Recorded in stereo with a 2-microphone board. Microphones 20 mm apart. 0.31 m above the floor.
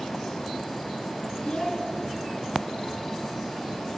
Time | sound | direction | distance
1.4 | a child speaking | 50° left (ahead or behind) | 2.5 m